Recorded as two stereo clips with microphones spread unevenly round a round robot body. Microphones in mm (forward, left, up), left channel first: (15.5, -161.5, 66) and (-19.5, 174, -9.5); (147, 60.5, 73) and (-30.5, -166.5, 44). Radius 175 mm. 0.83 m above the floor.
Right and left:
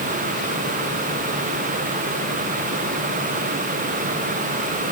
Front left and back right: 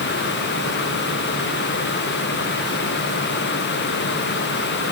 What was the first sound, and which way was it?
Only background noise.